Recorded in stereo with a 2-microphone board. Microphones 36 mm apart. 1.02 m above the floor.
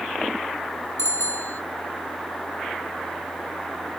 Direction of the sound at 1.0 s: 60° left (ahead or behind).